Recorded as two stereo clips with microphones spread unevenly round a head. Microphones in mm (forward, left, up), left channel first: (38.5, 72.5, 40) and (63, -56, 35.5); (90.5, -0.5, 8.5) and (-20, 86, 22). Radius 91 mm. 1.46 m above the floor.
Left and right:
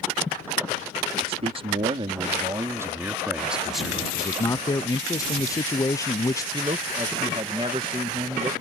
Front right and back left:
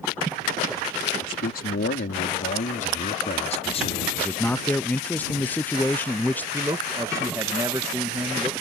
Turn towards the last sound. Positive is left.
turn(degrees=-145)